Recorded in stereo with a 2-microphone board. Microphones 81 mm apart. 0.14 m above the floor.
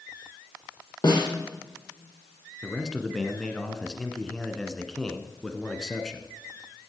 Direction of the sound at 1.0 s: 50° left (ahead or behind).